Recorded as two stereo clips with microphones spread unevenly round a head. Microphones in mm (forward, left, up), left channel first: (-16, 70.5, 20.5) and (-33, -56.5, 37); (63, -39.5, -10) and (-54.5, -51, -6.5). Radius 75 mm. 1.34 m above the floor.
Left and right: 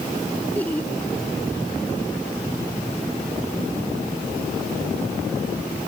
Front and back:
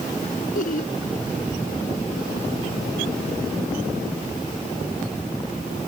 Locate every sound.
0.6 s laughter: straight ahead